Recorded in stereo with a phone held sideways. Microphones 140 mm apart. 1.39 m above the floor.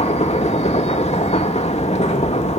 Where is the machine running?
50° left (ahead or behind), 2.5 m.